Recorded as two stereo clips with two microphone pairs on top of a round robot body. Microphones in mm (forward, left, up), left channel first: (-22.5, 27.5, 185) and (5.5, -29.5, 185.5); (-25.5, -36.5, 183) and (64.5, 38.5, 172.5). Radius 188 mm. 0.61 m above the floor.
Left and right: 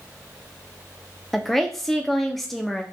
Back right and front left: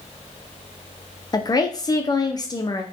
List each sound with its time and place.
1.3 s a woman speaking: 160° right, 0.6 m